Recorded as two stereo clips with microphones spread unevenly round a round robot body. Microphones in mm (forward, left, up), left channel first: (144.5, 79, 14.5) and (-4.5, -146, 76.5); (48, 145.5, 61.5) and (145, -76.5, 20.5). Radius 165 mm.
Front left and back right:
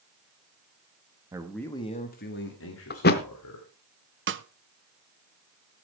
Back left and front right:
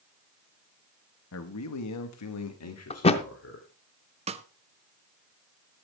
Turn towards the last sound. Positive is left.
turn(degrees=-85)